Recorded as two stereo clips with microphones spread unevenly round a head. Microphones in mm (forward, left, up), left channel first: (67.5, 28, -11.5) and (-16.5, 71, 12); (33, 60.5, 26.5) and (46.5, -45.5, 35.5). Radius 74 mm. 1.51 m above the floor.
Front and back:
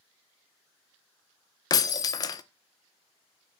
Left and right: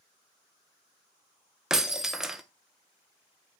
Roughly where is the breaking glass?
Ahead.